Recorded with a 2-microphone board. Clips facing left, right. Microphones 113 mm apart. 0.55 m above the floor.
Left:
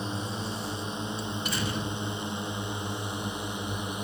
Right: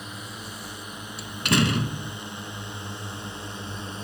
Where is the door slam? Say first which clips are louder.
Right 7 dB; 85° right.